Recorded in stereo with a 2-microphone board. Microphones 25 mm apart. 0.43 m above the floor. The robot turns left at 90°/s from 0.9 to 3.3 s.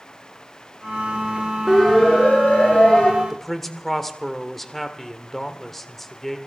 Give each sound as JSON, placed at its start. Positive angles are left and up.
{"t": 1.7, "sound": "a siren", "side_deg": -5, "distance_m": 7.0}
{"t": 3.2, "sound": "a man speaking", "side_deg": 5, "distance_m": 1.4}